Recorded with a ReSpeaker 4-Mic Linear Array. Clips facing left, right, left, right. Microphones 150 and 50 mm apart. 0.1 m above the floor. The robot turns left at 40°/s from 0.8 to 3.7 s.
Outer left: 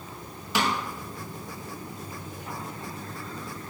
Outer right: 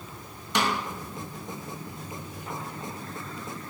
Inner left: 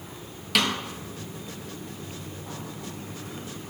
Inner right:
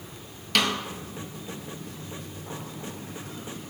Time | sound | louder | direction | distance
0.6 | a snare drum | even, even | 5° left (ahead or behind) | 0.5 m